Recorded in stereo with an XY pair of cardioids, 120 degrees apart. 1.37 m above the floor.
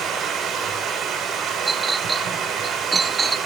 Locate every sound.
0.0 s running water: 60° right, 3.5 m
1.7 s a clink: 25° right, 0.8 m